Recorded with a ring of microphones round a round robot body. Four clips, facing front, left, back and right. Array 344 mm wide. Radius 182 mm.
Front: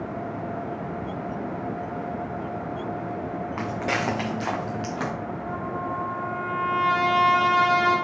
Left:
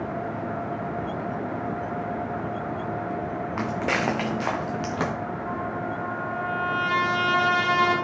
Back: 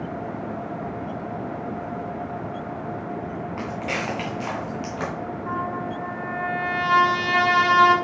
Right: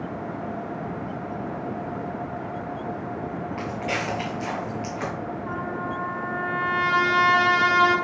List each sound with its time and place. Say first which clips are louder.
3.6 s footsteps: left 4 dB, front 2 dB; 65° left, 2.5 m; by 5.1 s 90° left, 3.5 m
5.5 s a trumpet: right 1 dB, back 2 dB; 175° right, 1.9 m